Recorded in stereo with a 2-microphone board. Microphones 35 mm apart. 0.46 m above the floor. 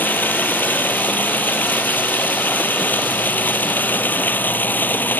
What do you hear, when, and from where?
0.0 s running water: 65° left (ahead or behind)